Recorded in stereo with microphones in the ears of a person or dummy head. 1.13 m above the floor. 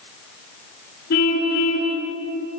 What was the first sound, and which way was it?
A car horn, 60° left (ahead or behind).